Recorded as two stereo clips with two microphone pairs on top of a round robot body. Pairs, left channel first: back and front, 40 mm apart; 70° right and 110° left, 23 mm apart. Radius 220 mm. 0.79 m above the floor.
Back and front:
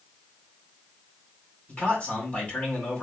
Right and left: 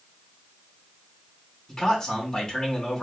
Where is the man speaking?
125° right, 2.5 m.